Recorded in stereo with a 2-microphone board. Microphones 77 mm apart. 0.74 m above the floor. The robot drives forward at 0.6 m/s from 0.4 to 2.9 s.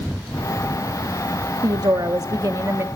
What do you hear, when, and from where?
1.6 s a woman speaking: 60° right (ahead or behind), 0.8 m; by 2.9 s 40° right (ahead or behind), 1.1 m